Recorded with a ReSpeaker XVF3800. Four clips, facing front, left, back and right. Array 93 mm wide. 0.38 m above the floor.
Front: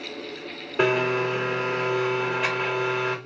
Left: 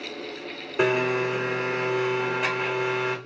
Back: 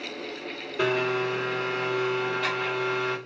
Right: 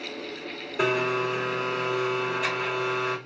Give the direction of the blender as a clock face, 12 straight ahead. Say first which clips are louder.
Left 2 dB, front 3 dB; 11 o'clock.